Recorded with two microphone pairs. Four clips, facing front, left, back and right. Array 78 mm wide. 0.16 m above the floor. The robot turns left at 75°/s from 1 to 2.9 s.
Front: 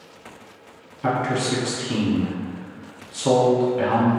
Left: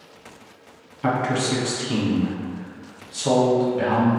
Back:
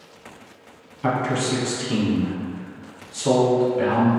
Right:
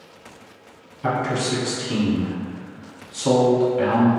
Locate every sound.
1.0 s a man speaking: 105° left, 1.0 m; by 4.1 s 35° right, 1.0 m